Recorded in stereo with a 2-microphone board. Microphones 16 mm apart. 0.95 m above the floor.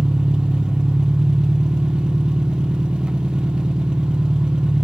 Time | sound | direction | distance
0.0 | an engine running | 75° right (ahead or behind) | 1.1 m